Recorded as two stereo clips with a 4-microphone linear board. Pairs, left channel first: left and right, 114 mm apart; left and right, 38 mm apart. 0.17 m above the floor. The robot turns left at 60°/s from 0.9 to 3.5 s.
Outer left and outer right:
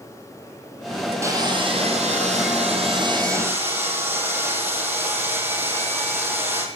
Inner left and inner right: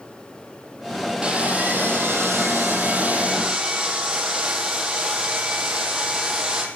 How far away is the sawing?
About 2.5 m.